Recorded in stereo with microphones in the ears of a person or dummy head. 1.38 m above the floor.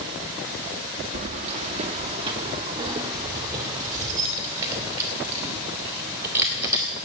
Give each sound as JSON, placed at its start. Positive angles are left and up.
{"t": 1.1, "sound": "keys jangling", "side_deg": -45, "distance_m": 1.3}